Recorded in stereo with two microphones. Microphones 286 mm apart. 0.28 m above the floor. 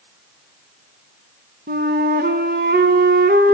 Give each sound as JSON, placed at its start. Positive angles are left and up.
{"t": 1.7, "sound": "a flute", "side_deg": -35, "distance_m": 1.1}